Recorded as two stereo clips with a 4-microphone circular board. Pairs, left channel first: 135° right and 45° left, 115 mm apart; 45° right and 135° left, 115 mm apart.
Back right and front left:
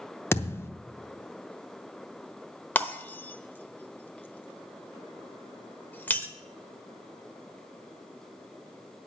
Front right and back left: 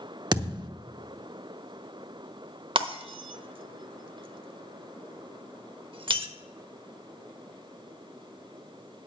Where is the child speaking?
I don't hear a child speaking.